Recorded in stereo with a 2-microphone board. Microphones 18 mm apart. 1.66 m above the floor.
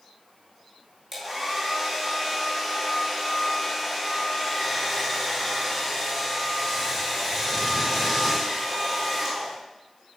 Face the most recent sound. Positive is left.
turn(degrees=0)  # may be behind; listen again after turning